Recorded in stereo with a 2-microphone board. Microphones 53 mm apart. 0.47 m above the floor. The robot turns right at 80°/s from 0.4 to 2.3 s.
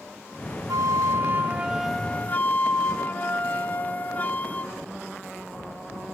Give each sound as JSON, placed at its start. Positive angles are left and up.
{"t": 0.7, "sound": "a flute", "azimuth_deg": -95, "distance_m": 0.7}